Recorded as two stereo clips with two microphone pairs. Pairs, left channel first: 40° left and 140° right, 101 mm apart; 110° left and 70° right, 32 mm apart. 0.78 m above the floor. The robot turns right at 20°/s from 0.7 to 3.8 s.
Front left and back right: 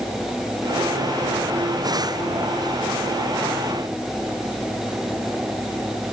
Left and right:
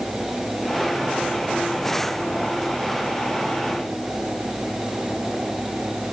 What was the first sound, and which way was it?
Only background noise.